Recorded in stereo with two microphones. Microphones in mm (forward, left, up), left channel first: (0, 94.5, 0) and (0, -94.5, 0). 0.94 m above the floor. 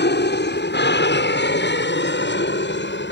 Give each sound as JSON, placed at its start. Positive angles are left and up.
{"t": 0.0, "sound": "an aircraft", "side_deg": 65}